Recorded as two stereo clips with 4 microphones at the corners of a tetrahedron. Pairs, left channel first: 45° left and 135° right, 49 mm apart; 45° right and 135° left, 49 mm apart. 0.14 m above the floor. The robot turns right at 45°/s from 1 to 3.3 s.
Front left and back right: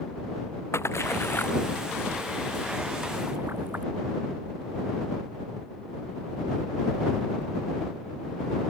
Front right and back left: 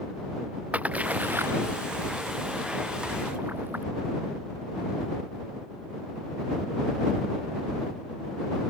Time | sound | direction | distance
0.7 | a splash | 75° left | ?